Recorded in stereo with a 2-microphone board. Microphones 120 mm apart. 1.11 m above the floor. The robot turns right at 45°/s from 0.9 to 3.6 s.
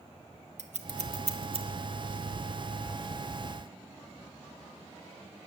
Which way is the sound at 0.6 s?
70° right (ahead or behind).